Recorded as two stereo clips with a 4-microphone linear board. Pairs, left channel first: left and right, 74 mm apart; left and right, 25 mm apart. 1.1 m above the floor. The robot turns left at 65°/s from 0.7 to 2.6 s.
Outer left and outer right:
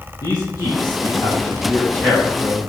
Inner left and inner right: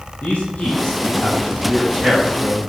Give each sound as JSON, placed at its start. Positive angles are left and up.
{"t": 0.2, "sound": "a man speaking", "side_deg": 70, "distance_m": 1.6}